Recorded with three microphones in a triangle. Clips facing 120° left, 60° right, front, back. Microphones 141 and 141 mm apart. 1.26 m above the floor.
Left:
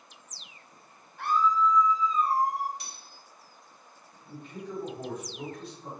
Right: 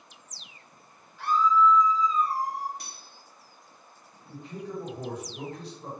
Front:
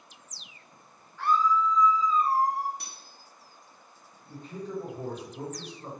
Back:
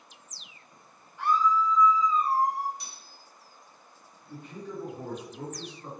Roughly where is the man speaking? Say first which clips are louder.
Right 2 dB, front 3 dB; ahead right.